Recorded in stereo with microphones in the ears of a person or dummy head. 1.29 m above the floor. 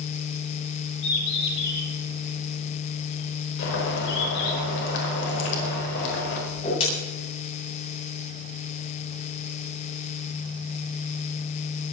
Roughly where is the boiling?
Left.